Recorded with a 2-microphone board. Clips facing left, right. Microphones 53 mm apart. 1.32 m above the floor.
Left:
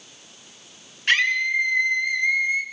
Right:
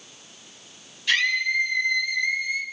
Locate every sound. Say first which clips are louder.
1.1 s a scream: left 2 dB; 45° left (ahead or behind), 7 m; by 2.6 s 35° left (ahead or behind), 5 m